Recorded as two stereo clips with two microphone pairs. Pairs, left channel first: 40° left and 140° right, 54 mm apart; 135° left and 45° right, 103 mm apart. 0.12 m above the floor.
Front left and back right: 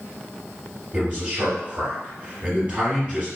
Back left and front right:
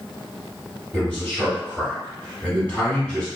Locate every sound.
0.9 s a man speaking: 170° right, 1.8 m